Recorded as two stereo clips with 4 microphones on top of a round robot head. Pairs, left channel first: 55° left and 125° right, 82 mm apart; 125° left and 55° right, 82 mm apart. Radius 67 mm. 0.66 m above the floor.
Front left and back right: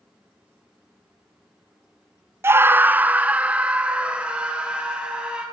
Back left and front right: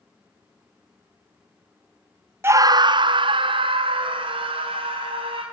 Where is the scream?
90° right, 0.6 m; by 5.4 s 45° right, 5 m.